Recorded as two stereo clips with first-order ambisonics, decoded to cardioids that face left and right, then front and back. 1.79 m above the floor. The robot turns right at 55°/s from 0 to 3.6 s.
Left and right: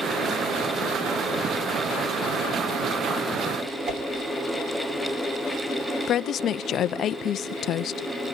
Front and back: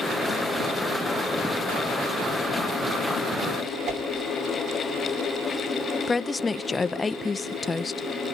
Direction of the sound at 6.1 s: 65° left.